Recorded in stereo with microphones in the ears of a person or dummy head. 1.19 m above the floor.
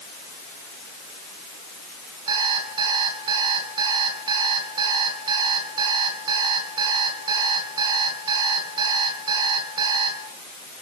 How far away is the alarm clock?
About 6.5 m.